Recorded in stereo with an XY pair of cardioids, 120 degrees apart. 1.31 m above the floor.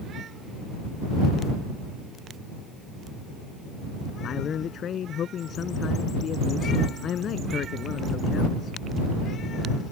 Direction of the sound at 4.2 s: 50° left.